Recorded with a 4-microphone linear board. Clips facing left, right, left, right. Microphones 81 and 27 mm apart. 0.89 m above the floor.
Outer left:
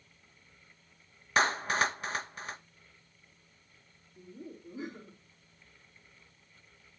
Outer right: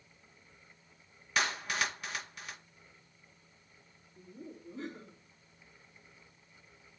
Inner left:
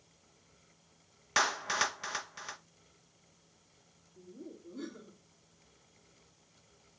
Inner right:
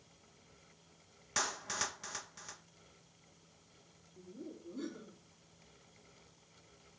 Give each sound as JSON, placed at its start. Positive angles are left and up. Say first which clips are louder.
{"t": 1.4, "sound": "a clap", "louder": "outer left 6 dB, inner left 8 dB", "side_deg": 35, "distance_m": 0.6}
{"t": 4.2, "sound": "laughter", "louder": "outer left 2 dB, even", "side_deg": 5, "distance_m": 2.5}